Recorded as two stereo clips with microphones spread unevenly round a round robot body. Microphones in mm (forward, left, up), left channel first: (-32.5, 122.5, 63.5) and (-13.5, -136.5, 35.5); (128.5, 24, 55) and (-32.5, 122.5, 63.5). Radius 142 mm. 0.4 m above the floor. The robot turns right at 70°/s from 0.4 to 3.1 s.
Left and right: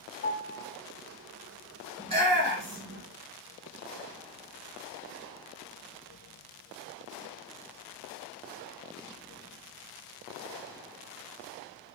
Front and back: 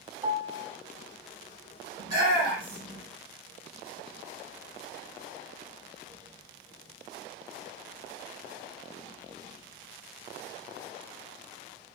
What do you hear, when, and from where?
0.2 s a piano: 90° left, 0.8 m; by 0.7 s 115° left, 0.8 m
2.0 s a shout: 150° right, 2 m; by 3.0 s 80° right, 2 m